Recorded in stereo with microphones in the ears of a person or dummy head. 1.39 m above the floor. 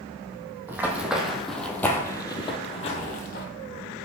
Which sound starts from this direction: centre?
Running footsteps, at 0.7 s.